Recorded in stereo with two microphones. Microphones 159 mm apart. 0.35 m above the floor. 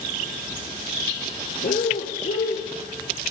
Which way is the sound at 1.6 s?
75° left (ahead or behind).